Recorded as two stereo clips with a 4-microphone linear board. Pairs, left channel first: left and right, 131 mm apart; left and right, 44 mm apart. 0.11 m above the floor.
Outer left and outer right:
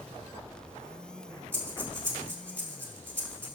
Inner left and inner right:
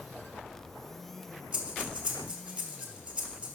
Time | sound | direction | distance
1.5 | breathing | 20° right (ahead or behind) | 2.5 m